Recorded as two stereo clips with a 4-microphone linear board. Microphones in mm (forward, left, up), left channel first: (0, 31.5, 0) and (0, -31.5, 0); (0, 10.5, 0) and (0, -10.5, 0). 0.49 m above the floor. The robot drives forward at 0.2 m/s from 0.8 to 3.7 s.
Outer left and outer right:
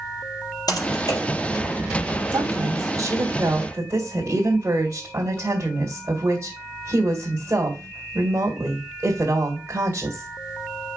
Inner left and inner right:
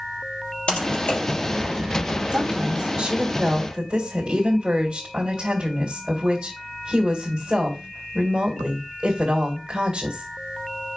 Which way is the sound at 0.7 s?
70° left (ahead or behind).